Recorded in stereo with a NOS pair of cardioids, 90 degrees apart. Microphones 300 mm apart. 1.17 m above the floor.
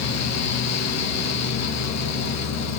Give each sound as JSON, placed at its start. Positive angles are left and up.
{"t": 0.0, "sound": "a fan", "azimuth_deg": 60, "distance_m": 1.3}